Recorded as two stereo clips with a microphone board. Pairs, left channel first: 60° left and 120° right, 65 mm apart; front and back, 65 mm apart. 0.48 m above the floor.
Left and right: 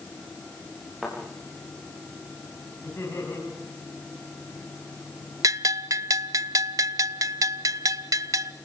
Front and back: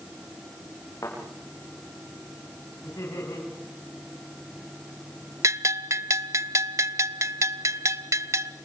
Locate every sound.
1.0 s a thud: 35° right, 8.5 m
2.8 s laughter: 10° left, 4.5 m
5.4 s a bell: 145° right, 0.7 m